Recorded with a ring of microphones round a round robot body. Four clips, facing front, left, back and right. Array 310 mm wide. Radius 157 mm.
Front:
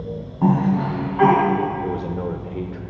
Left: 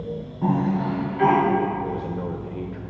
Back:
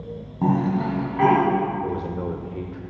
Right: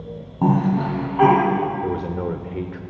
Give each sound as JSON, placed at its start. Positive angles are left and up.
{"t": 0.4, "sound": "a cough", "azimuth_deg": -120, "distance_m": 3.0}
{"t": 1.8, "sound": "a man speaking", "azimuth_deg": -75, "distance_m": 0.8}